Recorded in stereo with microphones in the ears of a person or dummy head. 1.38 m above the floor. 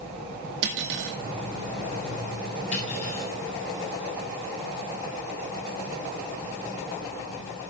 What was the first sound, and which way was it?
Cutlery clinking, 70° right (ahead or behind).